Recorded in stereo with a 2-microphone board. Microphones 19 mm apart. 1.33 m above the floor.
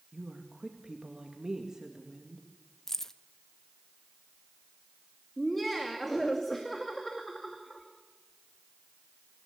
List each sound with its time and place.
0.1 s a woman speaking: 35° right (ahead or behind), 2 m
2.9 s keys jangling: 20° left (ahead or behind), 0.6 m
5.4 s laughter: 5° left (ahead or behind), 2.5 m